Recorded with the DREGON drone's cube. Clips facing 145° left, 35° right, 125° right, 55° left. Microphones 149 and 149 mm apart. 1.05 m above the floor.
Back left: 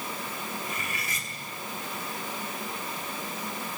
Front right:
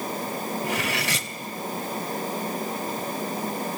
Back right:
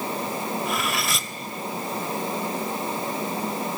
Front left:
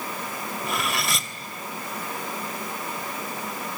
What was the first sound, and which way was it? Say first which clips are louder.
Cutlery clinking: front right 9 dB, back right 1 dB; 35° right.